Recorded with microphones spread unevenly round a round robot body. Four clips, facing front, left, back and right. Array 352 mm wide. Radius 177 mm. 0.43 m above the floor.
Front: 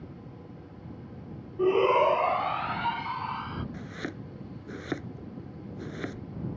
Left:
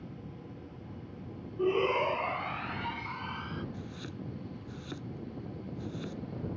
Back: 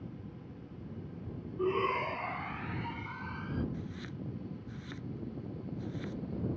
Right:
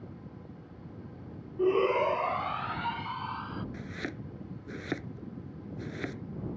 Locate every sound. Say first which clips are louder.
1.6 s a shout: right 3 dB, front 10 dB; 20° right; by 3.6 s 5° right
3.7 s chopping: right 3 dB, front 5 dB; 25° right